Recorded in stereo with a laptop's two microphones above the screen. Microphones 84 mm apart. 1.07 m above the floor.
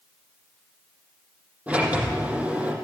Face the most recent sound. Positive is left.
turn(degrees=-20)  # may be behind; listen again after turning